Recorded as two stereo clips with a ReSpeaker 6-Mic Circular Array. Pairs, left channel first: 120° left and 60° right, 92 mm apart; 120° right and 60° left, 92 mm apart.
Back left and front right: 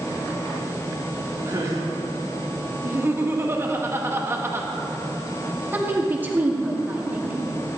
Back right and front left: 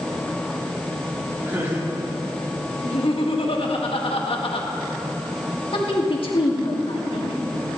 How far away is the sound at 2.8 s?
About 1.7 m.